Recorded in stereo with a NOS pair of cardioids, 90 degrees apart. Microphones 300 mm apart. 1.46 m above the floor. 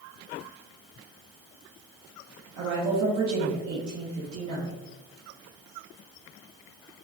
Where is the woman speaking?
60° right, 1.1 m.